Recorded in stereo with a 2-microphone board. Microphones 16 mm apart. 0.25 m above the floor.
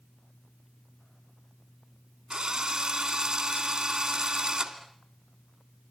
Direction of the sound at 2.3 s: 45° right (ahead or behind).